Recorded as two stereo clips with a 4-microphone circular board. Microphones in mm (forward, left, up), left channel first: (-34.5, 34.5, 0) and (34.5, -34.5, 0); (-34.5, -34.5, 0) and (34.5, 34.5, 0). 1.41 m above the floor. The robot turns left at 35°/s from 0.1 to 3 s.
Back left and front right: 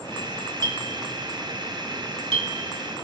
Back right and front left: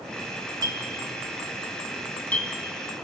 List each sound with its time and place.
0.6 s a clink: straight ahead, 1.7 m; by 2.5 s 70° right, 1.7 m